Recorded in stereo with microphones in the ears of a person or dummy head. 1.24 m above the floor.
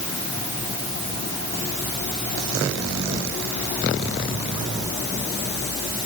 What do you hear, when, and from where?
Only background noise.